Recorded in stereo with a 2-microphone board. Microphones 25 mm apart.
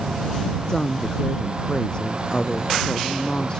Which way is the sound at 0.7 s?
30° left (ahead or behind).